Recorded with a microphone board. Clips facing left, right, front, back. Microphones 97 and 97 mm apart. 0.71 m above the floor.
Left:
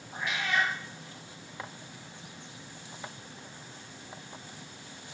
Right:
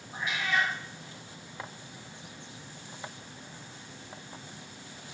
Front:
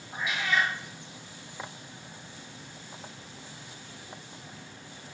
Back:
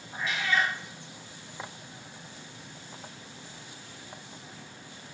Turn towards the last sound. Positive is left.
turn(degrees=75)